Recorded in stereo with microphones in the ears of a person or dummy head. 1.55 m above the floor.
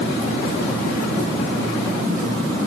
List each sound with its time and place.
Only background noise.